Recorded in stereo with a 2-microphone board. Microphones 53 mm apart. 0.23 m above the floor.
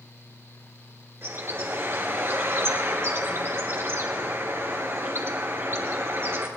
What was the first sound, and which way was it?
A bird, 50° right (ahead or behind).